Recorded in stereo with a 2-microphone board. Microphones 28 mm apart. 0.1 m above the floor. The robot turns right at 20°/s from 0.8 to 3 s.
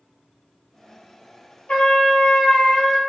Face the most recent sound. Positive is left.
turn(degrees=35)  # may be behind; listen again after turning